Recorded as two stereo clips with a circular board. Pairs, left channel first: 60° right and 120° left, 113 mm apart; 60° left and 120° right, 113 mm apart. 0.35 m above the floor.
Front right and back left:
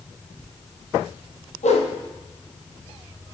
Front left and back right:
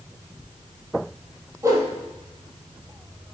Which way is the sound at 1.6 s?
55° right.